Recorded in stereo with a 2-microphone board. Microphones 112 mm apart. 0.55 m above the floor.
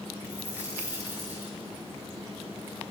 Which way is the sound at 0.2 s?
15° right (ahead or behind).